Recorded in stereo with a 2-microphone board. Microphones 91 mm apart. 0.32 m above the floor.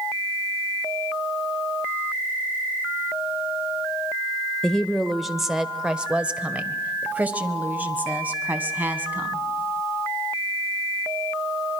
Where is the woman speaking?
5° left (ahead or behind), 1.0 m; by 9.4 s 20° right (ahead or behind), 2.5 m.